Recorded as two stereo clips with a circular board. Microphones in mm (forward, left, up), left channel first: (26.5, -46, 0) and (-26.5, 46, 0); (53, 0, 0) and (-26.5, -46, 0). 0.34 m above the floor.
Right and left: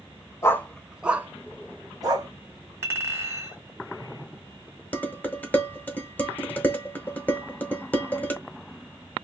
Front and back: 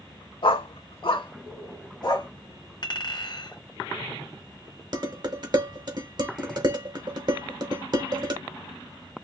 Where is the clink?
60° left, 1.4 m.